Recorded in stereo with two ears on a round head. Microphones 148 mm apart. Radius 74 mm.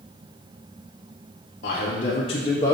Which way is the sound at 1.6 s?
55° left (ahead or behind).